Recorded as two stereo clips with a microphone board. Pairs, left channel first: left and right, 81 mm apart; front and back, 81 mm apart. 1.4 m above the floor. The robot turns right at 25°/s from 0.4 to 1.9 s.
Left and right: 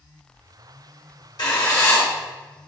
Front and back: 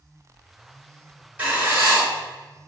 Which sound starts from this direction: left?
Writing, at 1.4 s.